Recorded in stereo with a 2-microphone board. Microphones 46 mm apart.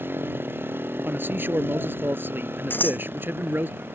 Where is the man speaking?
50° right (ahead or behind).